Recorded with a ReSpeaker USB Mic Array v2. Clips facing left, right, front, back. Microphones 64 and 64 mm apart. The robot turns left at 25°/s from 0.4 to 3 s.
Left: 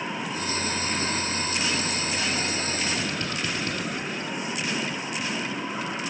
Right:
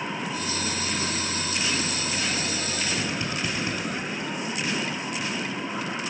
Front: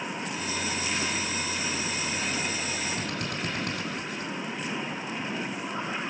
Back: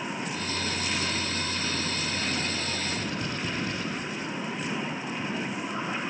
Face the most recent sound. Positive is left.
turn(degrees=-15)